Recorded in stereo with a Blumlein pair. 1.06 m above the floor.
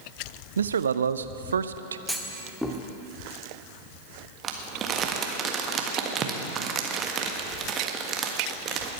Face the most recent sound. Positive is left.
turn(degrees=-25)